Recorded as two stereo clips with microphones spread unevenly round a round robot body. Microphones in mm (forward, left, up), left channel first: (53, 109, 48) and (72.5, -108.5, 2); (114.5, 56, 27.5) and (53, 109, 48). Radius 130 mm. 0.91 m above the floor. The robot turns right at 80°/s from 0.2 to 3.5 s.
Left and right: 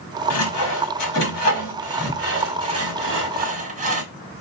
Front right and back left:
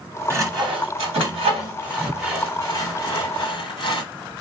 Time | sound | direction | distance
0.3 | sawing | 70° left | 1.3 m